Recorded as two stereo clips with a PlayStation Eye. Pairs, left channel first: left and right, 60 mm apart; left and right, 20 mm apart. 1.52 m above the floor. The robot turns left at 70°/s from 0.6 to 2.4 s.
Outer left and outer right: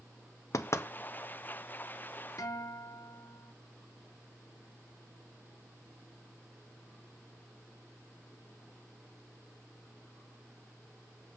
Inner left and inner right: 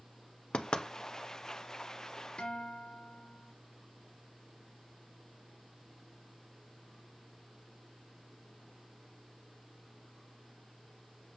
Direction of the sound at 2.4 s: 65° left (ahead or behind).